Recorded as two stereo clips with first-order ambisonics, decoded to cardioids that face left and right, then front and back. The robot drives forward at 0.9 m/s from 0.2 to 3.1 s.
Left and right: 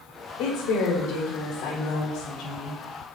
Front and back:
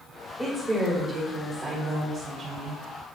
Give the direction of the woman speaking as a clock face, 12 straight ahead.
9 o'clock.